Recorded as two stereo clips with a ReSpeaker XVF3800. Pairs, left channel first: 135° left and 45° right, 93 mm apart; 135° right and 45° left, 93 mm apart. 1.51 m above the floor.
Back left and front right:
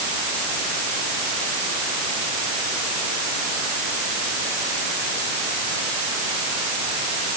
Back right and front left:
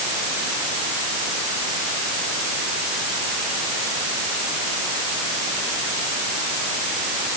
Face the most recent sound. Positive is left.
No sound to turn to.